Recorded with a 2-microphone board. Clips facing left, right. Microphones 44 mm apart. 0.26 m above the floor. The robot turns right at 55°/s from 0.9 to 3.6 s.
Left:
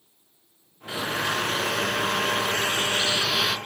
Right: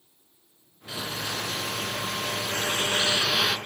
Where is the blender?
35° left, 2.5 m; by 3.6 s straight behind, 2.5 m.